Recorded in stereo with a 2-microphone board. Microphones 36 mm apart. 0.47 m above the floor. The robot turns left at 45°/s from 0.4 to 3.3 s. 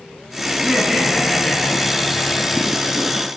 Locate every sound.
0.5 s laughter: 150° right, 7.5 m; by 3.0 s 100° left, 7.5 m